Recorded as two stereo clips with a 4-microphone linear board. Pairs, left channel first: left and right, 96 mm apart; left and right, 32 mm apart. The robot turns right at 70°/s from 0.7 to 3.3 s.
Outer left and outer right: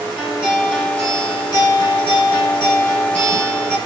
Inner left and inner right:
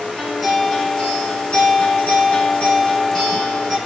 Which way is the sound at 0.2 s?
5° right.